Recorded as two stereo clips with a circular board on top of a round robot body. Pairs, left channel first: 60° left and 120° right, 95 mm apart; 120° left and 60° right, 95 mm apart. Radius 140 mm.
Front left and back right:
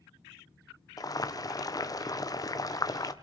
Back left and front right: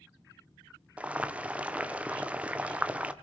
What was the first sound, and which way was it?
Boiling, 15° left.